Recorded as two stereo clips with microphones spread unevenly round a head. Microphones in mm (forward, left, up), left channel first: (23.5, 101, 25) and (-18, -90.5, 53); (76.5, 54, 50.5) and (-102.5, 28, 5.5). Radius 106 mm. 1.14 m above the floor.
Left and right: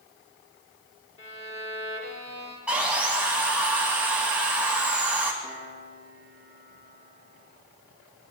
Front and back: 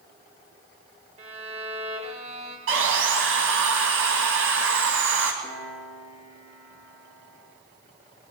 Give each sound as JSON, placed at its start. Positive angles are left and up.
{"t": 1.2, "sound": "a violin", "azimuth_deg": 135, "distance_m": 3.5}
{"t": 2.7, "sound": "sawing", "azimuth_deg": 175, "distance_m": 2.5}
{"t": 5.4, "sound": "a piano", "azimuth_deg": 95, "distance_m": 8.5}